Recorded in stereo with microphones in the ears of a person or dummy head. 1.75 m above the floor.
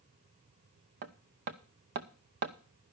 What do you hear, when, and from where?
1.0 s hammering: 35° right (ahead or behind), 0.5 m